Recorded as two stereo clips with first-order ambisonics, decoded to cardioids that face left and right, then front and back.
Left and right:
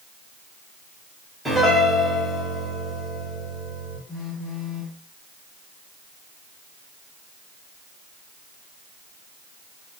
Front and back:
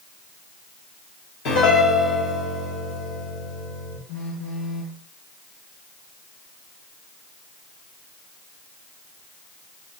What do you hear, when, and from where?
1.4 s a piano: 5° right, 2 m
4.1 s a phone buzzing: 30° left, 1.5 m